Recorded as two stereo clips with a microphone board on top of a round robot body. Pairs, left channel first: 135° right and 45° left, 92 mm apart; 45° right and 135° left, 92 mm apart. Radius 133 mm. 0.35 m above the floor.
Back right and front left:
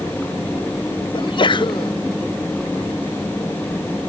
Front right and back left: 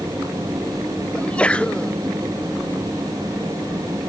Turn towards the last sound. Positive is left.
turn(degrees=-120)